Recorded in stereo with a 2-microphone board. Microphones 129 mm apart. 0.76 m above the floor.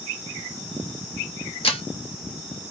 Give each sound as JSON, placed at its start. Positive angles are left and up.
{"t": 1.6, "sound": "breaking glass", "side_deg": 45, "distance_m": 0.8}